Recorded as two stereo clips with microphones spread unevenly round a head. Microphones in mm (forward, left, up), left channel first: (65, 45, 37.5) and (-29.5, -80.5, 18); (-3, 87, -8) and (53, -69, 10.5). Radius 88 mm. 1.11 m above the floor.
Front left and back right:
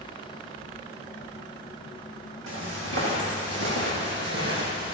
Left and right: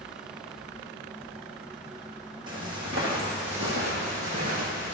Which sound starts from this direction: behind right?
Footsteps, at 2.5 s.